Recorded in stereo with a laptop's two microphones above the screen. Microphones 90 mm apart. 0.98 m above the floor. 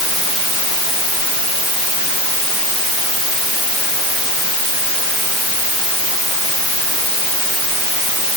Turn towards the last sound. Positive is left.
No sound to turn to.